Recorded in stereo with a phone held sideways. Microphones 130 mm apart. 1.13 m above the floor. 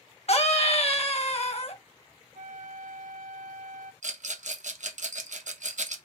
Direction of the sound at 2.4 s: 80° right.